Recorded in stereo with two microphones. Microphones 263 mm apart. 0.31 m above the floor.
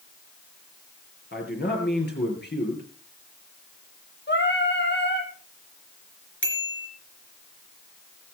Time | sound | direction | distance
1.3 | a man speaking | 40° left (ahead or behind) | 5 m
4.3 | singing | 40° left (ahead or behind) | 2 m
6.4 | a bicycle bell | 45° left (ahead or behind) | 3.5 m